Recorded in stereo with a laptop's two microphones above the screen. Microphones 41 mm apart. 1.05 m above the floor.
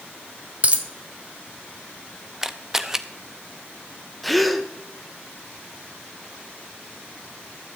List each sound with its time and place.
0.6 s a dropped coin: 30° right (ahead or behind), 1.0 m
2.4 s a camera shutter: 10° right (ahead or behind), 0.5 m
4.2 s a gasp: centre (ahead or behind), 0.8 m